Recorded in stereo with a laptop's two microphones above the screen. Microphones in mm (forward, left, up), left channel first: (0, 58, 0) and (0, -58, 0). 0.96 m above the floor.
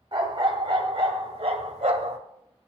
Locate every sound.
0.1 s a dog barking: 40° right (ahead or behind), 1.9 m; by 2.2 s 65° right (ahead or behind), 1.2 m